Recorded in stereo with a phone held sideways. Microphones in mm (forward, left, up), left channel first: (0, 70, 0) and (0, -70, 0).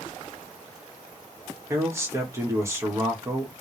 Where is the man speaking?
20° right (ahead or behind), 1.4 m.